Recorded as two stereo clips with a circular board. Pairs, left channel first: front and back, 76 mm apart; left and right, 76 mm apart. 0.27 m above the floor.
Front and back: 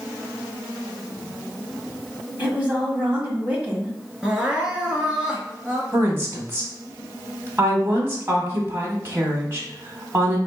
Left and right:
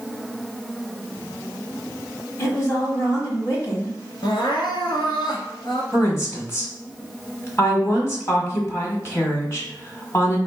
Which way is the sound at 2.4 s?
115° left.